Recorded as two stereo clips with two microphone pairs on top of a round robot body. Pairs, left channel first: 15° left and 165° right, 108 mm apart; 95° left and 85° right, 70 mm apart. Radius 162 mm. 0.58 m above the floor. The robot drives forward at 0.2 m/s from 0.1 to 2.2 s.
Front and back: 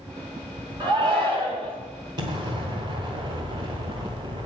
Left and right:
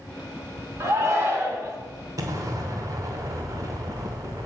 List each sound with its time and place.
0.8 s a shout: 130° right, 2.5 m
2.2 s an explosion: 120° right, 1.0 m